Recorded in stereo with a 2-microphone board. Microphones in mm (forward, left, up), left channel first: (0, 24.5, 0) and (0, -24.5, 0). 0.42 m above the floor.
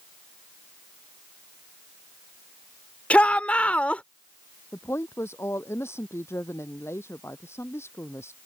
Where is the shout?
30° left (ahead or behind).